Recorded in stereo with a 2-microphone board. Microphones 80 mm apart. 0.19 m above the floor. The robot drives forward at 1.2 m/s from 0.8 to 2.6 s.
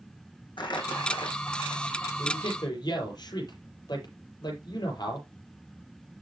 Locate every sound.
0.6 s crumpling: 80° left, 4.5 m; by 2.1 s 75° left (ahead or behind), 4.5 m
2.2 s a man speaking: 65° left (ahead or behind), 6 m; by 5.3 s 60° left (ahead or behind), 6 m